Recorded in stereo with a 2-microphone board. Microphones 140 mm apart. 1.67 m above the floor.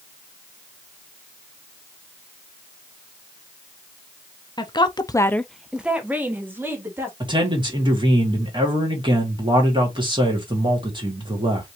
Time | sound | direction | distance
4.6 | a woman speaking | 30° left (ahead or behind) | 0.9 m
7.2 | a man speaking | 35° right (ahead or behind) | 2.5 m